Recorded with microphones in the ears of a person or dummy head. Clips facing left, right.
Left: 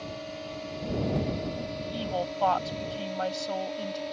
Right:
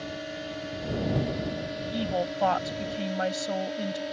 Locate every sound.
0.0 s a drone: 15° right (ahead or behind); by 4.1 s 10° right (ahead or behind)
1.9 s a woman speaking: 25° right (ahead or behind)